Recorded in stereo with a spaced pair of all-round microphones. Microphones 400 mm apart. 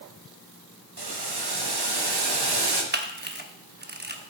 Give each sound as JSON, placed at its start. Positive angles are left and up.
{"t": 1.0, "sound": "boiling", "side_deg": -70, "distance_m": 0.9}
{"t": 2.9, "sound": "a camera shutter", "side_deg": -25, "distance_m": 0.7}